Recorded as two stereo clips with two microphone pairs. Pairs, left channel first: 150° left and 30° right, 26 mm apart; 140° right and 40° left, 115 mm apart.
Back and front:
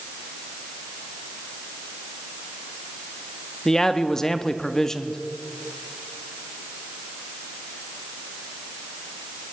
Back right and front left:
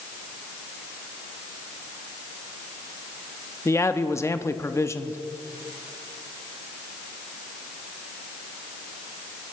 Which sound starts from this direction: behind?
A man speaking, at 3.6 s.